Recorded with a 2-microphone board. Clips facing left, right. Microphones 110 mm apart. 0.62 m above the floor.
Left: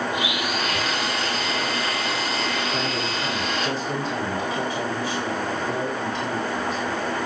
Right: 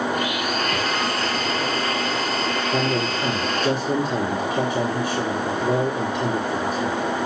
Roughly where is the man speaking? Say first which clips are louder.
Right 4 dB; right.